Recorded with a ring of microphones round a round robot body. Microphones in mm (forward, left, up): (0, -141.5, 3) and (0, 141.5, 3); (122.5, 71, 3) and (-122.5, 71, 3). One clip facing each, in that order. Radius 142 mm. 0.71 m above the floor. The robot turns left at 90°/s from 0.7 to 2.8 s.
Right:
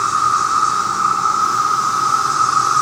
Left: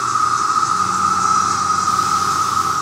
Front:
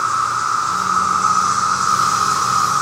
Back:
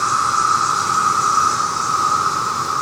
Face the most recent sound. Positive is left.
turn(degrees=-15)